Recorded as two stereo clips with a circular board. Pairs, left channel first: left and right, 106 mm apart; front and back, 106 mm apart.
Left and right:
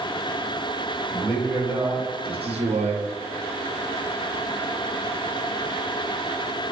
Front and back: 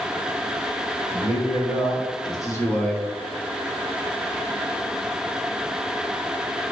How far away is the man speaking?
About 1.9 m.